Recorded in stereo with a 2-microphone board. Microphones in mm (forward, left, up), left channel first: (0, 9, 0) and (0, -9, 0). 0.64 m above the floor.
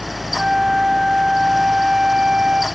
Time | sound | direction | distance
0.4 | a flute | 40° right (ahead or behind) | 1.0 m